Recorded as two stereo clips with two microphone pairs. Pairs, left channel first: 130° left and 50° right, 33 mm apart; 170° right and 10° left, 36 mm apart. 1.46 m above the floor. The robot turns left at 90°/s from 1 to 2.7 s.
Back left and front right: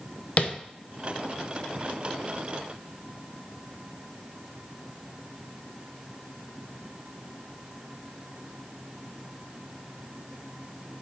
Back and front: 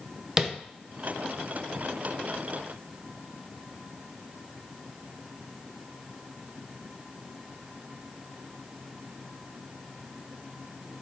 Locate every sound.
0.4 s tapping: 80° left, 0.6 m